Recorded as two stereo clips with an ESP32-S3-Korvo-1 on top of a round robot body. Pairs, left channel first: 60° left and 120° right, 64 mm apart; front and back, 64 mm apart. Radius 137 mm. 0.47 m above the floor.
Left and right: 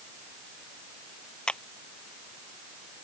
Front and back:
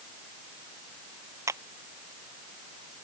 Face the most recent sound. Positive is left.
turn(degrees=135)